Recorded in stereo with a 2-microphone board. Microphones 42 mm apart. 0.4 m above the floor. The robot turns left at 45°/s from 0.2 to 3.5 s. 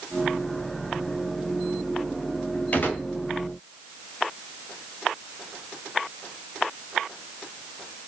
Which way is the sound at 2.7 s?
45° left (ahead or behind).